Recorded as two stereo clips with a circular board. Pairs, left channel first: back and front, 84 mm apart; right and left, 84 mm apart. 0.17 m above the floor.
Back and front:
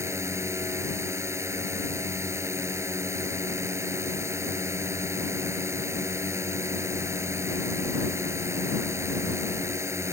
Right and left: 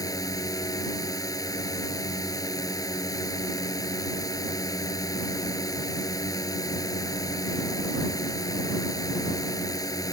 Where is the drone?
50° right.